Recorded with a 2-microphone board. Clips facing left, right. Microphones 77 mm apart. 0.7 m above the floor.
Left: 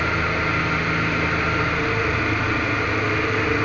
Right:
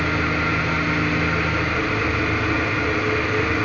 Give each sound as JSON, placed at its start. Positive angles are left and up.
{"t": 0.0, "sound": "an engine running", "side_deg": 0, "distance_m": 2.5}